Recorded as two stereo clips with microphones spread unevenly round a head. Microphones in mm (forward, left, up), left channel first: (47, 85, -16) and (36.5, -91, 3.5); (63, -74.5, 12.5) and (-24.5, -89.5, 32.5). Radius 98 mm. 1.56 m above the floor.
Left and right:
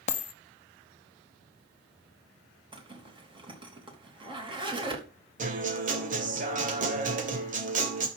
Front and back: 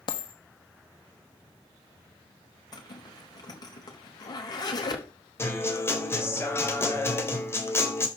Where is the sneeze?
No sneeze in this recording.